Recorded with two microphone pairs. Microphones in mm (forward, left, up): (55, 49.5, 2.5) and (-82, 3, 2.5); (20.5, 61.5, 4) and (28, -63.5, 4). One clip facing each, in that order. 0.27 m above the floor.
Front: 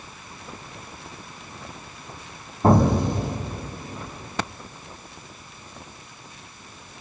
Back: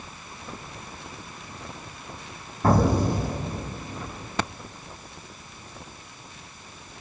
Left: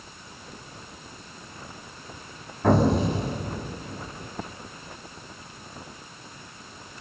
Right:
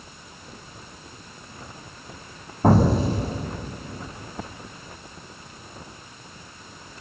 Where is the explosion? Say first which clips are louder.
Front 3 dB, right 2 dB; 45° right, 2.5 m.